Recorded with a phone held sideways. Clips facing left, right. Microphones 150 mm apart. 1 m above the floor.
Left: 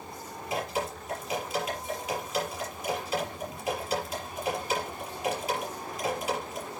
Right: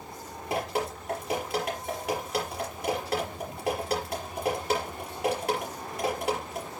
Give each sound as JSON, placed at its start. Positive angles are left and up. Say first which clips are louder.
{"t": 0.5, "sound": "dripping", "louder": "right 2 dB", "side_deg": -60, "distance_m": 5.5}